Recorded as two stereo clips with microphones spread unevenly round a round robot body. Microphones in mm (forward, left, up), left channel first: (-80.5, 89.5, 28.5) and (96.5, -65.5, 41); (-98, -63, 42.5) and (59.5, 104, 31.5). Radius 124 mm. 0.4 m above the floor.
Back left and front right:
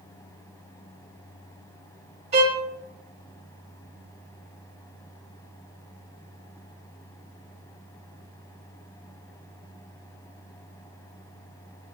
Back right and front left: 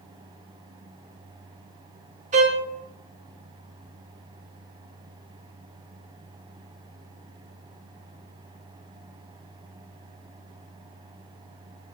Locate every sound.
2.3 s a violin: 10° left, 1.5 m